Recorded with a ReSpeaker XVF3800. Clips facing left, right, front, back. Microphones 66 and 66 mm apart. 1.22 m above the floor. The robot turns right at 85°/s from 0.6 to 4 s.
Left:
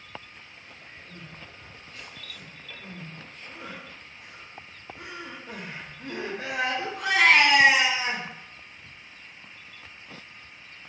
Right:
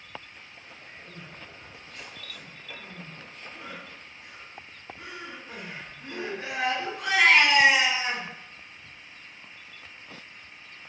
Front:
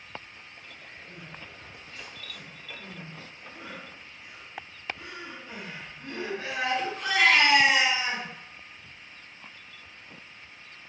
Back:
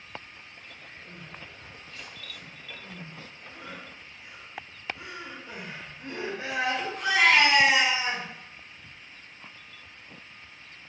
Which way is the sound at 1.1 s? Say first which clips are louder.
Even, even; 145° right.